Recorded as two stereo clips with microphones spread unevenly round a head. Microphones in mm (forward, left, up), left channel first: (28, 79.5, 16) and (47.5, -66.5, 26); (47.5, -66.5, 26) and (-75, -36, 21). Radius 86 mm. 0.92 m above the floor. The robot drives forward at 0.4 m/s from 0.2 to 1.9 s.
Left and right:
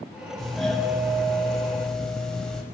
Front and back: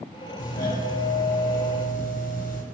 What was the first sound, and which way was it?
A doorbell, 10° left.